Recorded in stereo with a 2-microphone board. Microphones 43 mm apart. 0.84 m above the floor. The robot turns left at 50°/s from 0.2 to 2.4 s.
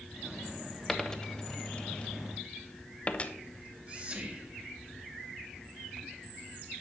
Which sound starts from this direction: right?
Whispering, at 3.5 s.